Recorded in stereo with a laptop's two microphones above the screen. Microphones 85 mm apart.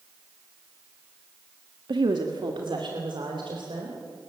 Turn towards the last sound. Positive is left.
turn(degrees=-70)  # may be behind; listen again after turning